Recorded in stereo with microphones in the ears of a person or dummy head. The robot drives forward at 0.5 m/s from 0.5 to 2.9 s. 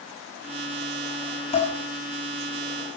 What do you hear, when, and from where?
1.5 s dishes clattering: 35° left (ahead or behind), 5.5 m